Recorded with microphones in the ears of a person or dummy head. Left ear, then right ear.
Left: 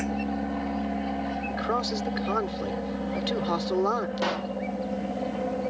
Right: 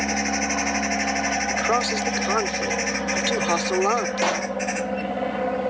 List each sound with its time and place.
0.0 s an aircraft: 50° right (ahead or behind)
1.5 s a man speaking: 25° right (ahead or behind)
4.2 s a pop: 25° right (ahead or behind)